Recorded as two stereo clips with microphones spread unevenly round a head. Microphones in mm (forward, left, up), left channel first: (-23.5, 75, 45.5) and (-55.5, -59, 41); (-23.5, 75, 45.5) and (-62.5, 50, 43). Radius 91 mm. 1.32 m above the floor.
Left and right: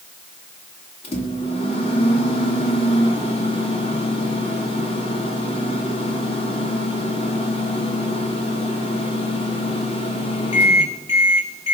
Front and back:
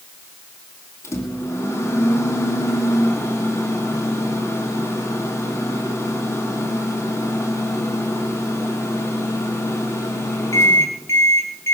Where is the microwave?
20° left, 2.5 m.